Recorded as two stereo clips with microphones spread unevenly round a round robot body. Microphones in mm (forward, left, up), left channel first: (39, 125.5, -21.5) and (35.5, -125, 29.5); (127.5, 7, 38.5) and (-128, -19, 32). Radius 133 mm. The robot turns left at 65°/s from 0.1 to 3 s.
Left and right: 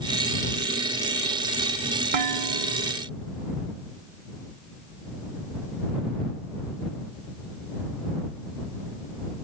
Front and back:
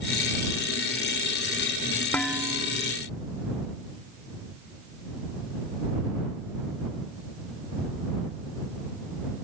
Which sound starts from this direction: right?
Dishes clattering, at 2.1 s.